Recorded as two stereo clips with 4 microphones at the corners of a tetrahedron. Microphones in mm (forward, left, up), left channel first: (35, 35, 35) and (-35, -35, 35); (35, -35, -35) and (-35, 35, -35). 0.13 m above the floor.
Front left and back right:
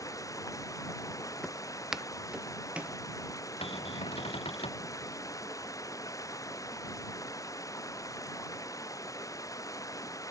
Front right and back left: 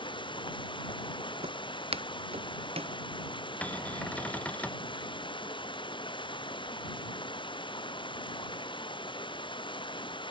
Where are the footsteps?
130° left; by 3.0 s 150° left.